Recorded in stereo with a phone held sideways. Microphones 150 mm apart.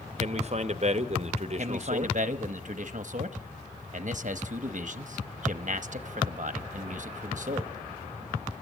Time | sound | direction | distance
0.2 | a man speaking | 50° right (ahead or behind) | 0.8 m
1.6 | a man speaking | 55° right (ahead or behind) | 0.8 m